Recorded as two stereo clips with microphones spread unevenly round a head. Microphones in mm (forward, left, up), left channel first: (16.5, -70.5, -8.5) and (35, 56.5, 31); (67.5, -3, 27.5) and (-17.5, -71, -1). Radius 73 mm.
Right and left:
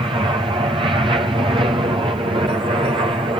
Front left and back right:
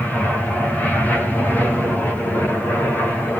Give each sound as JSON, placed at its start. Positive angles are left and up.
{"t": 0.0, "sound": "an aircraft", "azimuth_deg": 135}